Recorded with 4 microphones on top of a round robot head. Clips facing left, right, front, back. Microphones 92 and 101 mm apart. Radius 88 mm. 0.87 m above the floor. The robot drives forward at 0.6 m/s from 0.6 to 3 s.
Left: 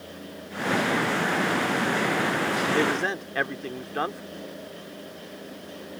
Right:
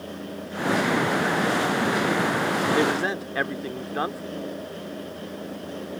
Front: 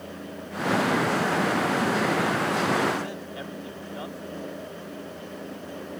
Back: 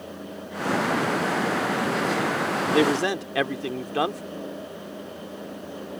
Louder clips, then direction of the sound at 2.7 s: Right 2 dB, back 5 dB; 175° right.